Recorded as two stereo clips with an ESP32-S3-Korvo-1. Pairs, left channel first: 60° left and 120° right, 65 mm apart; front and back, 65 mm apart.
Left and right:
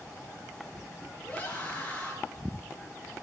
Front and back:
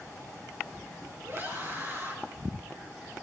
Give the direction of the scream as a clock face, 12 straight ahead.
8 o'clock.